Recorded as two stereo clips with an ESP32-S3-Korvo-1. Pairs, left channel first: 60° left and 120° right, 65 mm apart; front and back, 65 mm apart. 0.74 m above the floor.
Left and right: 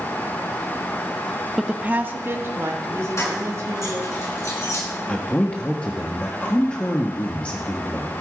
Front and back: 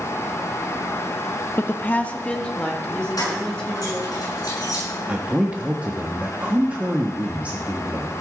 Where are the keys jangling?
20° left, 7 m.